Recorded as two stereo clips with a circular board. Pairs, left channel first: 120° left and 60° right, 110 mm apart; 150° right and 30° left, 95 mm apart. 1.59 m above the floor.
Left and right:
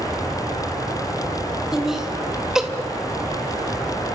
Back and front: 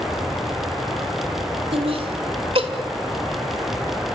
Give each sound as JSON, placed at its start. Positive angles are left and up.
{"t": 1.7, "sound": "laughter", "azimuth_deg": 25, "distance_m": 3.0}